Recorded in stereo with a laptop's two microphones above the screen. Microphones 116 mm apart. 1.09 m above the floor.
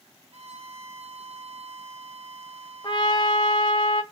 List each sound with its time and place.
0.3 s a violin: 60° right (ahead or behind), 0.6 m
2.8 s a trumpet: 40° left (ahead or behind), 0.5 m